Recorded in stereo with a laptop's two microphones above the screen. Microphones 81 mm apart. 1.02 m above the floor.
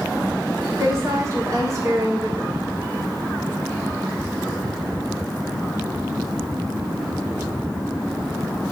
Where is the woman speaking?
40° right (ahead or behind), 3 m.